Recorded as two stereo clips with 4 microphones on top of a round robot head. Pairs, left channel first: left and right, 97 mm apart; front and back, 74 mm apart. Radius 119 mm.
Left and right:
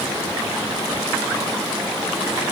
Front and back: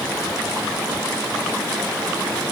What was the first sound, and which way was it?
Only background noise.